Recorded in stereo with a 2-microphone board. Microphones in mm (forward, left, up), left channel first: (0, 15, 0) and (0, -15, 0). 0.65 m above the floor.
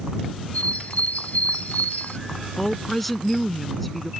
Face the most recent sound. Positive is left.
turn(degrees=5)  # may be behind; listen again after turning